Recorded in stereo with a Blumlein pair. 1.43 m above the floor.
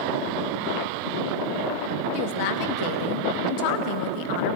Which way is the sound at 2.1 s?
45° left.